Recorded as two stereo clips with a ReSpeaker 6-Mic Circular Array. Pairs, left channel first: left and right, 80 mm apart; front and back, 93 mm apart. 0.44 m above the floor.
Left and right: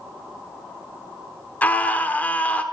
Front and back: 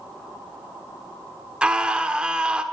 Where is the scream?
115° left, 1.3 m.